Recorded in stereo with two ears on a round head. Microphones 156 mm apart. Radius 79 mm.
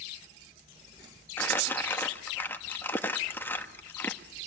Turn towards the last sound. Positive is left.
turn(degrees=10)  # may be behind; listen again after turning